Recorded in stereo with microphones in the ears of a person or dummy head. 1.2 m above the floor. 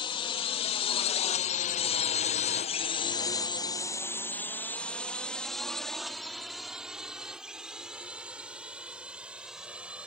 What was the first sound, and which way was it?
A drone, 30° left (ahead or behind).